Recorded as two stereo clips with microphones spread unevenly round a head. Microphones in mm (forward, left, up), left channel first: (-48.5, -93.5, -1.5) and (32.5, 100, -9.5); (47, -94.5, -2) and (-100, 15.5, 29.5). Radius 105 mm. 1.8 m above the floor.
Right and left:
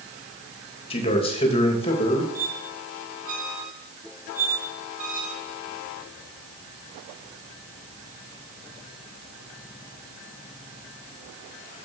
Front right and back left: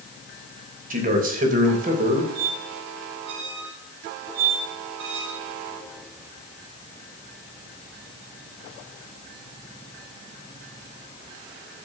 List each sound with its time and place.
0.9 s a man speaking: 175° right, 3 m
2.4 s a squeak: 120° left, 2.5 m